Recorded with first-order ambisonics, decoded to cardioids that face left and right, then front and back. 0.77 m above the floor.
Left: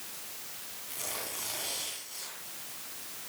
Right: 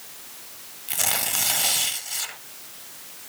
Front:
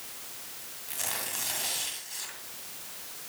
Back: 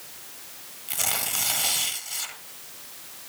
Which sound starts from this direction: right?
Tearing paper, at 0.9 s.